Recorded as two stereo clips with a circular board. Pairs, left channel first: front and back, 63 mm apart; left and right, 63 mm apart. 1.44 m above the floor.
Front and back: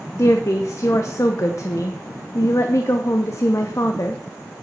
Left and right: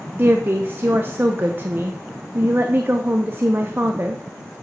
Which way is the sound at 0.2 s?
35° right.